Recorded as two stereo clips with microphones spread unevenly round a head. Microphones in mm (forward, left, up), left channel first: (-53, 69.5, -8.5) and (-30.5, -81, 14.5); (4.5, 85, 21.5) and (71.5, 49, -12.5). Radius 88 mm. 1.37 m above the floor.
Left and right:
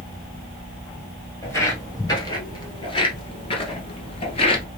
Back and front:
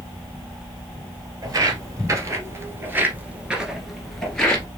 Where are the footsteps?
20° left, 1.9 m; by 4.7 s 140° left, 1.6 m.